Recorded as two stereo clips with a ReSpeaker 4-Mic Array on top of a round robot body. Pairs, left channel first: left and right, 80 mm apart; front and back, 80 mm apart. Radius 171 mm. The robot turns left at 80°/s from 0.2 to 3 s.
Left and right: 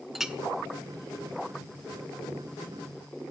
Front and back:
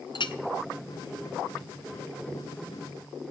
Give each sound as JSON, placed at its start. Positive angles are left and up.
{"t": 0.1, "sound": "a clink", "azimuth_deg": -5, "distance_m": 0.9}